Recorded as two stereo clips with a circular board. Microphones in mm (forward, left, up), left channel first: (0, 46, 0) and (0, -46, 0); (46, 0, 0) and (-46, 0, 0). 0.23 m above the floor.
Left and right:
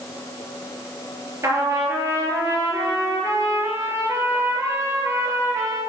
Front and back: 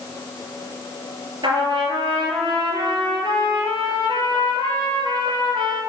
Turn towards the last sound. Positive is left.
turn(degrees=-145)